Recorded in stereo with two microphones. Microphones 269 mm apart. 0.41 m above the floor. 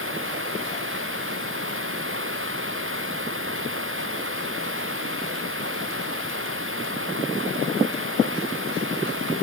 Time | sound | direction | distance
0.0 | running water | 50° right (ahead or behind) | ?